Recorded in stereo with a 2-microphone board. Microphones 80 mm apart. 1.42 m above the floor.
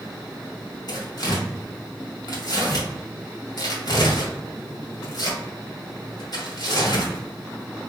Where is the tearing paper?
60° left (ahead or behind), 2 m.